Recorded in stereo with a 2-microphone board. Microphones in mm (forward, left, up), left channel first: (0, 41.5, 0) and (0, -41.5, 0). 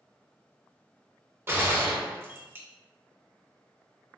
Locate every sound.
1.5 s a gunshot: 30° right (ahead or behind), 1.1 m